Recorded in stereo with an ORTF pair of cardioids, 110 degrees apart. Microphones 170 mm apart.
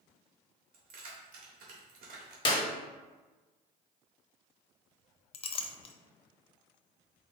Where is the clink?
35° left, 0.6 m.